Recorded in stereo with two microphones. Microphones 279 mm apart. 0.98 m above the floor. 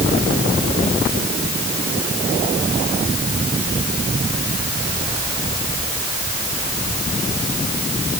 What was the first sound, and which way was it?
Only background noise.